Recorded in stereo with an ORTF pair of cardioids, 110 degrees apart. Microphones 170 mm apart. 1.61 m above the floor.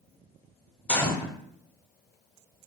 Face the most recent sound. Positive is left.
turn(degrees=10)